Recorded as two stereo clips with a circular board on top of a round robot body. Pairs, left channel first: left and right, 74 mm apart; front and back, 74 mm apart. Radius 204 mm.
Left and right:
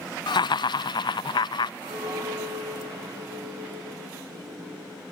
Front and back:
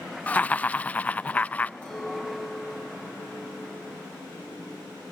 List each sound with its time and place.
0.3 s laughter: 75° left, 0.5 m
1.8 s a clink: 75° right, 7 m